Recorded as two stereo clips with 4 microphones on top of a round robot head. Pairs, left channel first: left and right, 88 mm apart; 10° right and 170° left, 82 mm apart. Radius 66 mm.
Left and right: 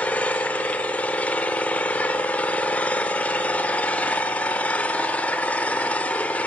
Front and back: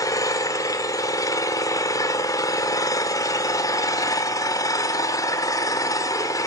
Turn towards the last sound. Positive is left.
turn(degrees=20)